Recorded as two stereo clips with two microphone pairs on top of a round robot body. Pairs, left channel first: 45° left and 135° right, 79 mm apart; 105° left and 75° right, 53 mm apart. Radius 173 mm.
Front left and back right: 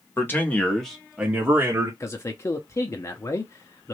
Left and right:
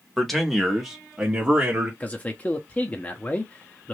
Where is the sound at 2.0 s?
70° left, 0.9 m.